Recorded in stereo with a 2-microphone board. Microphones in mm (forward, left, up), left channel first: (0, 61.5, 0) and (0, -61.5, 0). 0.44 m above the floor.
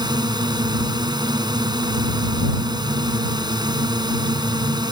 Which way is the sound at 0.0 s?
35° right (ahead or behind).